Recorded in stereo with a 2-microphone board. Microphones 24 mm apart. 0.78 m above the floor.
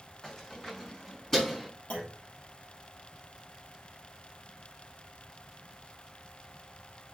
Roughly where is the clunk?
Left.